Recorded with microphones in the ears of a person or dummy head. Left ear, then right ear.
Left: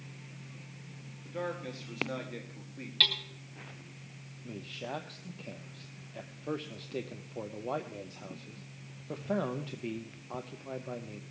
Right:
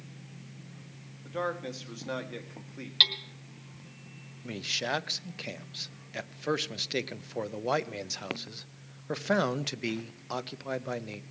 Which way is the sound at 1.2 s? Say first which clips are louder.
Right 4 dB; 40° right (ahead or behind).